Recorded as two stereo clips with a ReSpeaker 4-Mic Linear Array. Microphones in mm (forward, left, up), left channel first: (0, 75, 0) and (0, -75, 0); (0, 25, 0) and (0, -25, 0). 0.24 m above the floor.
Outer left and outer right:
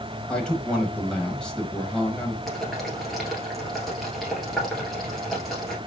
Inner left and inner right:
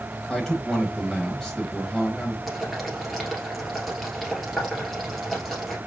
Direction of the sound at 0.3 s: 5° left (ahead or behind).